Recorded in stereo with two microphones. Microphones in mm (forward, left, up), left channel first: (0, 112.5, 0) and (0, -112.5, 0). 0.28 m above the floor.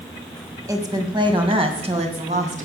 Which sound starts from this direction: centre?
A woman speaking, at 0.7 s.